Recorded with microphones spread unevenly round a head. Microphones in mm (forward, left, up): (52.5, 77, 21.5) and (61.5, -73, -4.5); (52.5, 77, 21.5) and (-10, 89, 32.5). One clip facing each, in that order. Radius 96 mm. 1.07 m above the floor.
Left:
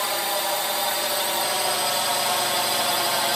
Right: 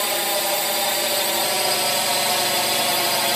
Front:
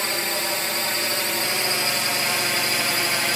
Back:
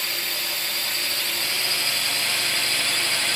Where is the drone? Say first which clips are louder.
Right 2 dB, front 5 dB; 35° right; by 3.4 s 40° right.